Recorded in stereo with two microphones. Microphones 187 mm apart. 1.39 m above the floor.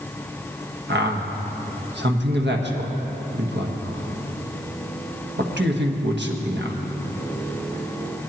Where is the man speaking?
70° right (ahead or behind), 1.4 m.